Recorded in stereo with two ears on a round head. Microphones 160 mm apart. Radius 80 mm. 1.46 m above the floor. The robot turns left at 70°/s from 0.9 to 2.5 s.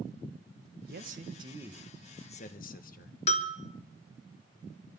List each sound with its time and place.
0.9 s a man speaking: 120° right, 1.5 m; by 3.2 s 130° left, 1.5 m
3.3 s a bell: 40° left (ahead or behind), 1.3 m